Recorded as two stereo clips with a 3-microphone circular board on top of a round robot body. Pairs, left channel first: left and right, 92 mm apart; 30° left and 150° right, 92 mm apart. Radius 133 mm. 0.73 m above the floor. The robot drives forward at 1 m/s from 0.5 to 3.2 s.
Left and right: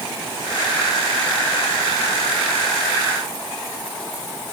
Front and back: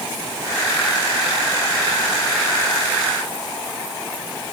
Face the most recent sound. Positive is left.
No sound to turn to.